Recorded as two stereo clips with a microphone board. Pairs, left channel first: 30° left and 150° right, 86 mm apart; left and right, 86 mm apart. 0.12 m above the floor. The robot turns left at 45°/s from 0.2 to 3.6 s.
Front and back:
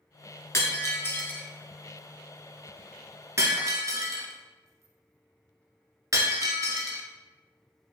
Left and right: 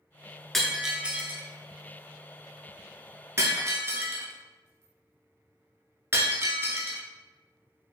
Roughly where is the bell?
I don't hear a bell.